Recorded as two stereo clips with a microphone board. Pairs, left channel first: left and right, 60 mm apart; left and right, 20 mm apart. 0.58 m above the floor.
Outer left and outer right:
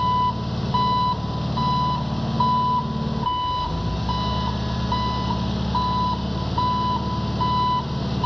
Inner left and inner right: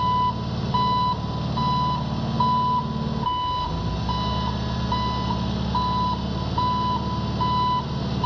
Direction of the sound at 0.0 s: Centre (ahead or behind).